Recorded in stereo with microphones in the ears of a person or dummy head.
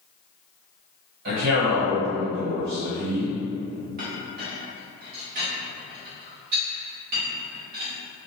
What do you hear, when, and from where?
1.2 s a man speaking: 50° right (ahead or behind), 1.2 m
4.0 s a clink: 45° right (ahead or behind), 0.9 m